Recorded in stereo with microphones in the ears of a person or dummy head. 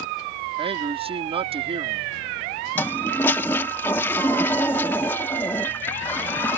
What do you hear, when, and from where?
0.6 s a man speaking: 30° right (ahead or behind)
2.8 s a toilet flushing: 5° left (ahead or behind)